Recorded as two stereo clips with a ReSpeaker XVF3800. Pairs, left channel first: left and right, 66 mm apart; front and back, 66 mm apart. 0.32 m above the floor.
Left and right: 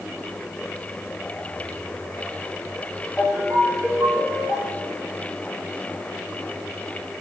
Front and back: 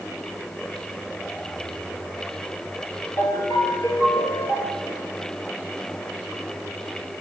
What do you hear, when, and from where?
3.2 s a ringtone: 20° left, 3.5 m